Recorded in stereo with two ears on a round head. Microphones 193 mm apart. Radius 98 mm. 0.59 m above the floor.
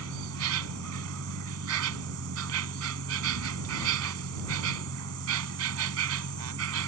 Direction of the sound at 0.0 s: 80° right.